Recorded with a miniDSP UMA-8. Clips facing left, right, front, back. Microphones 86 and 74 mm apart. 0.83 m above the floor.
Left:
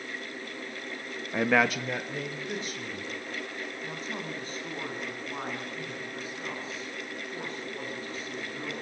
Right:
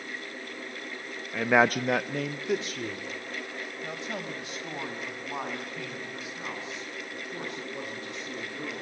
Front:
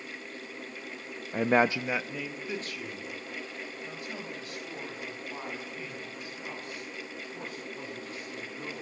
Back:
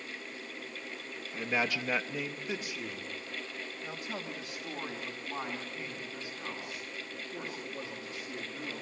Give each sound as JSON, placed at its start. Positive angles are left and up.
{"t": 1.3, "sound": "a man speaking", "azimuth_deg": 20, "distance_m": 0.5}